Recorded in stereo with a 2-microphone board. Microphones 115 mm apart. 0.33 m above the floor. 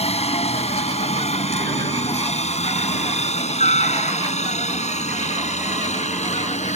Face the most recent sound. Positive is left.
turn(degrees=70)  # may be behind; listen again after turning